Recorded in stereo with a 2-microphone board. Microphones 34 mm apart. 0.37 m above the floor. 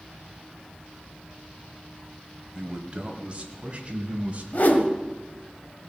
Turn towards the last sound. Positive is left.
turn(degrees=55)  # may be behind; listen again after turning